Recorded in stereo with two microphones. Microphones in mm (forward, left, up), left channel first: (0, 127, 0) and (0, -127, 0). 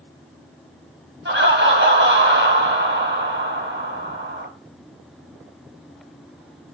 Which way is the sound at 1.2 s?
45° right (ahead or behind).